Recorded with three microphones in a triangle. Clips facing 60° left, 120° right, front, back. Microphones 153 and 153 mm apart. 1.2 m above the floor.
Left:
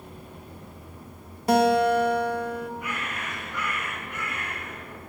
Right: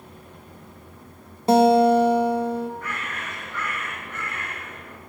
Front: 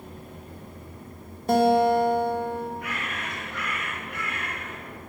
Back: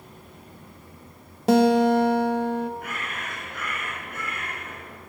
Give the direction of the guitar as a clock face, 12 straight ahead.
6 o'clock.